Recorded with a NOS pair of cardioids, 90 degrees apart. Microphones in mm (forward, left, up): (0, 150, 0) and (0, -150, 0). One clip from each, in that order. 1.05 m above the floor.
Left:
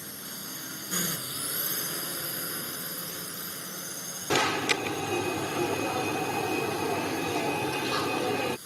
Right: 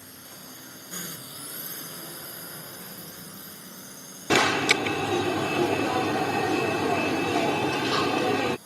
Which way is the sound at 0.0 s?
40° left.